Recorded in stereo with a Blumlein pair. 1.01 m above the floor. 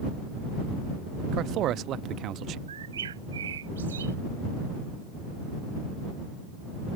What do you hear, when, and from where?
1.3 s a man speaking: 35° right
2.7 s a bird: 65° right